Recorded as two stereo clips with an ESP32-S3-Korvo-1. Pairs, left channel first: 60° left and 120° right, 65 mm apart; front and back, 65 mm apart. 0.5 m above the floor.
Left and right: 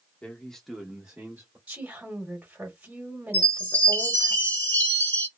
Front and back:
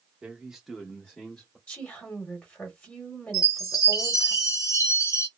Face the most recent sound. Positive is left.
turn(degrees=15)